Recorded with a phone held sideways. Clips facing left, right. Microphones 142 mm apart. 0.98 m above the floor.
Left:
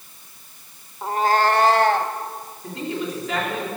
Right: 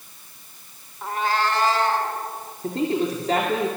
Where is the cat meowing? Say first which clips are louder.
Left 5 dB; 25° left (ahead or behind), 1.1 m; by 2.1 s 70° left (ahead or behind), 2 m.